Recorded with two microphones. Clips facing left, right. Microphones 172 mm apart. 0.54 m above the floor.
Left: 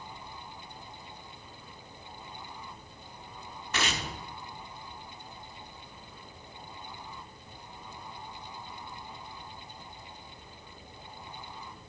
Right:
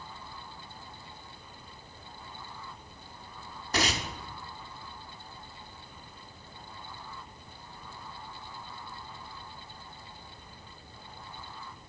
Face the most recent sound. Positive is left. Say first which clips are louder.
# right 3 dB
turn(degrees=-35)  # may be behind; listen again after turning